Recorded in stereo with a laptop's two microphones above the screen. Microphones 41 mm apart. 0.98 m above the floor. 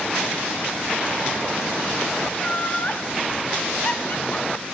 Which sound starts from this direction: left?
Laughter, at 2.3 s.